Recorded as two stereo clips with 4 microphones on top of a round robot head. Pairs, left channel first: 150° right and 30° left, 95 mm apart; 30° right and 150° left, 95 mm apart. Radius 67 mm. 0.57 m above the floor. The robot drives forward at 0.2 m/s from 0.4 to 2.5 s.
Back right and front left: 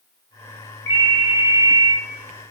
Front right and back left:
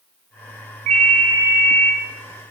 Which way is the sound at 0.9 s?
150° left.